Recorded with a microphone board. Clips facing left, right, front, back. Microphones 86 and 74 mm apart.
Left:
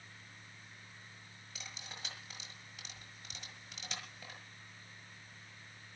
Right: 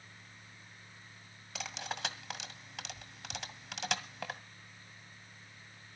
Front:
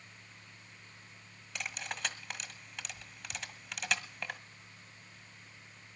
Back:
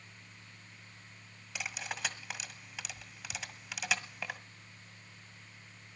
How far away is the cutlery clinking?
About 1.6 m.